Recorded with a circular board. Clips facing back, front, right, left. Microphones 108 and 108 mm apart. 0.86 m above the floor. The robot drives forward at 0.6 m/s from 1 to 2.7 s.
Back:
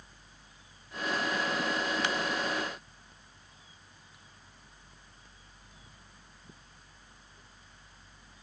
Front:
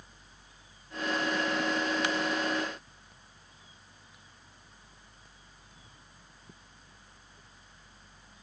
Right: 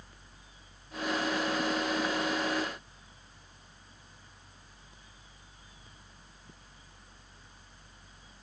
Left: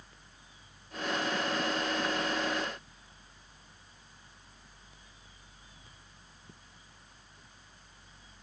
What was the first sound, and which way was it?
Only background noise.